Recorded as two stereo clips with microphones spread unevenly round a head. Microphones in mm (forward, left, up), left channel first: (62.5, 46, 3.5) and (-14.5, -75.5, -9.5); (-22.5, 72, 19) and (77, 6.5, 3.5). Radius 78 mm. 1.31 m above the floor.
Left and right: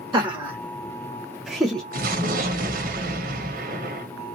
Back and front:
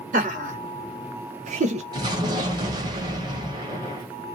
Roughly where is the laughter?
Ahead right.